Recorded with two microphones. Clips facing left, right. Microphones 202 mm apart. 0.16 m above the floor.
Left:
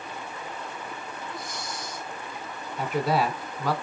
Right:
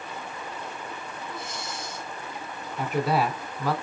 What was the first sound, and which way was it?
Breathing, 25° right (ahead or behind).